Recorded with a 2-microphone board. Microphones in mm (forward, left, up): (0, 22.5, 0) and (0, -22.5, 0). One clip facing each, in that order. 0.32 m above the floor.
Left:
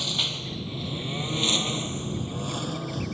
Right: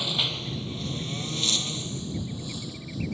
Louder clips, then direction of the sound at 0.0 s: Right 1 dB; 10° right (ahead or behind).